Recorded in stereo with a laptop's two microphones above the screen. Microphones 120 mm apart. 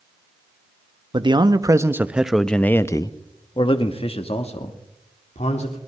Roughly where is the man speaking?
Right.